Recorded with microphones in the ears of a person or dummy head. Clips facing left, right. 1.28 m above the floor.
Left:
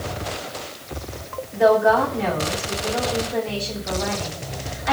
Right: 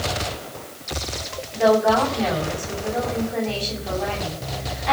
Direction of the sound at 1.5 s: 20° left (ahead or behind).